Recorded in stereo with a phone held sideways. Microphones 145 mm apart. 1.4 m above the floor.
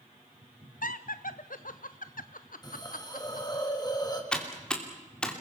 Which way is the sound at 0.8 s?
75° left (ahead or behind).